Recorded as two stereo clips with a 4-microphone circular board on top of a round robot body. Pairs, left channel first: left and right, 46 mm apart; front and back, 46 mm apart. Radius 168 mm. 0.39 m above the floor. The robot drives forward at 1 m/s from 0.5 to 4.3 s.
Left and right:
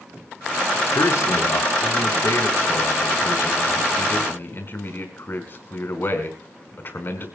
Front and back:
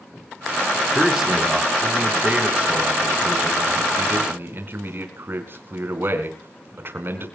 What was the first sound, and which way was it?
A man speaking, 95° left.